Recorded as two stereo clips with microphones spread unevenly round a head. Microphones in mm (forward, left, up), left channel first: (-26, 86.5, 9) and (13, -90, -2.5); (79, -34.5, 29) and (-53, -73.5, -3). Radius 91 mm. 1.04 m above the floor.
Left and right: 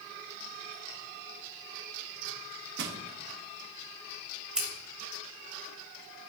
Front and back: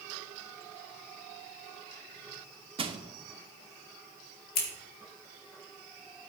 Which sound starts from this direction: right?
Crushing, at 2.8 s.